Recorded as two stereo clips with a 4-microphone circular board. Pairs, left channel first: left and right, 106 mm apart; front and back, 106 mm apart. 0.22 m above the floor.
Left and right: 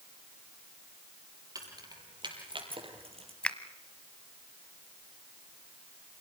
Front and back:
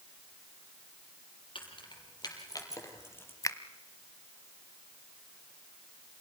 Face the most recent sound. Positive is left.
turn(degrees=15)